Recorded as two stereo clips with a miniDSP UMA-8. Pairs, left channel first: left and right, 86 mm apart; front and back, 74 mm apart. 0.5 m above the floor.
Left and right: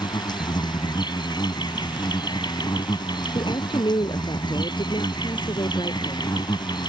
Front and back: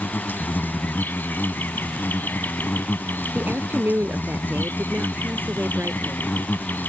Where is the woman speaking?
115° left.